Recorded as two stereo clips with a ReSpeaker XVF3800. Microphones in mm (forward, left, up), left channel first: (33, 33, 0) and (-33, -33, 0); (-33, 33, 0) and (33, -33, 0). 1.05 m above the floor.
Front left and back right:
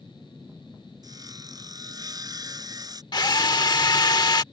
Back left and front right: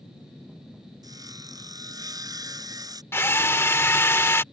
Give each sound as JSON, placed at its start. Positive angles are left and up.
{"t": 1.0, "sound": "sawing", "azimuth_deg": -90}
{"t": 3.1, "sound": "a drill", "azimuth_deg": 75}